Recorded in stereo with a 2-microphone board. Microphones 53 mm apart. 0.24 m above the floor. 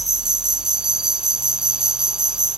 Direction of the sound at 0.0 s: 15° right (ahead or behind).